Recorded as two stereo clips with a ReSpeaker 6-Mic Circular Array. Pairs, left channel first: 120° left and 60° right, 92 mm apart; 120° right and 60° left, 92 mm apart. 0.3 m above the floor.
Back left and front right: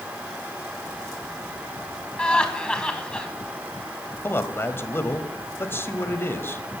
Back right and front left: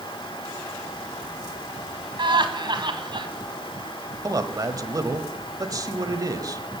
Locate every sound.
2.2 s laughter: 40° left, 2.0 m
4.2 s a man speaking: 70° left, 1.2 m